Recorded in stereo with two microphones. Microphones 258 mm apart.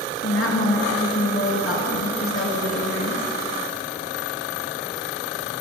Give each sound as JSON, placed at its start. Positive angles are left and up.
{"t": 0.2, "sound": "a woman speaking", "side_deg": 60, "distance_m": 2.5}